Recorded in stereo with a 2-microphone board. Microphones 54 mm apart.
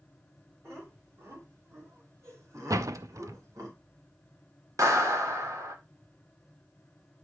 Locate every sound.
0.6 s laughter: 50° right (ahead or behind), 4.5 m; by 3.7 s 80° right, 3 m
2.7 s a door slam: 85° right, 0.5 m
4.8 s a clap: 80° right, 1.4 m